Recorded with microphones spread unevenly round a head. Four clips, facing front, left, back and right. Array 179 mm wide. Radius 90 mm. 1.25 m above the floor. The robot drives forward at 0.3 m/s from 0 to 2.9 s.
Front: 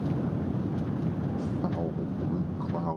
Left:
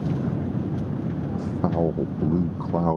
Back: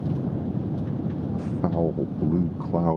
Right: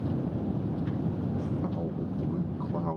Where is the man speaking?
125° left; by 3.0 s 145° left.